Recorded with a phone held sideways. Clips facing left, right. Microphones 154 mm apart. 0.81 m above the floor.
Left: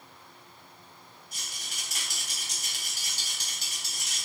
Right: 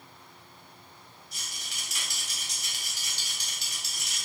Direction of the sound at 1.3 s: 50° left (ahead or behind).